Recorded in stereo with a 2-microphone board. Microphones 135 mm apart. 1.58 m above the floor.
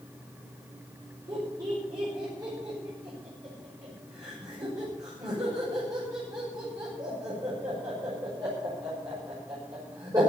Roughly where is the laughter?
Right.